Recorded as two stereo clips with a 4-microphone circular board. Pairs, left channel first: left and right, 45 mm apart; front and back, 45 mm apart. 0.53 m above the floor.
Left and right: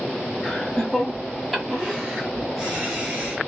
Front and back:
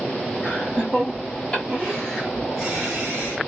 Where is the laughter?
15° left, 1.4 m; by 3.4 s 125° right, 1.5 m.